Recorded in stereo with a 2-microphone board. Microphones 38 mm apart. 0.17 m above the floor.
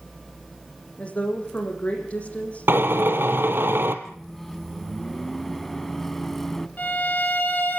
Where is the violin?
45° left (ahead or behind), 3.5 m.